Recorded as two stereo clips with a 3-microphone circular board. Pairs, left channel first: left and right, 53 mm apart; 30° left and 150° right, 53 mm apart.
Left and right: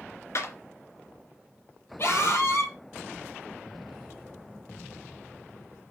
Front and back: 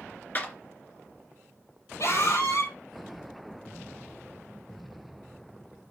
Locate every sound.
0.3 s a clap: 80° left, 2.5 m
2.0 s a scream: 50° left, 6 m